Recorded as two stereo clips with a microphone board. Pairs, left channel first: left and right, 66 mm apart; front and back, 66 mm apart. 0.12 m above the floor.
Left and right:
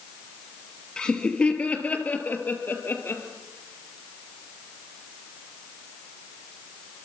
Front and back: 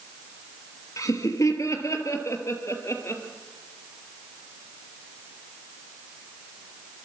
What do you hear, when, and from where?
1.0 s laughter: 15° left, 3 m; by 3.2 s 40° left, 3.5 m